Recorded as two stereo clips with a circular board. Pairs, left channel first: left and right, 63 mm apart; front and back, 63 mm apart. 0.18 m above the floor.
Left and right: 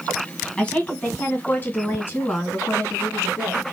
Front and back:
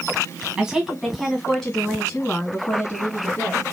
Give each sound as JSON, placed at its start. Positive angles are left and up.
{"t": 0.6, "sound": "a woman speaking", "azimuth_deg": 130, "distance_m": 1.4}